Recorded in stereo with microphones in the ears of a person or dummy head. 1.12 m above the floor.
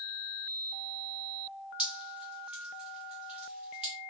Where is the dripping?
10° right (ahead or behind), 1.1 m.